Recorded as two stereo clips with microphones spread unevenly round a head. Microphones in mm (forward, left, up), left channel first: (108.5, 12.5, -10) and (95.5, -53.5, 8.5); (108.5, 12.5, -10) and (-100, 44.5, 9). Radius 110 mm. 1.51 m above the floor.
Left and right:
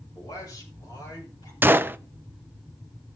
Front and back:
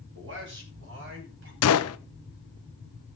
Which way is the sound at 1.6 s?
40° right.